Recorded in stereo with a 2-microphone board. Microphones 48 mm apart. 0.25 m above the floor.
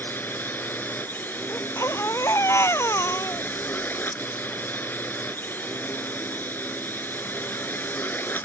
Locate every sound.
0.0 s a drone: 45° left (ahead or behind)
1.5 s a baby crying: 85° left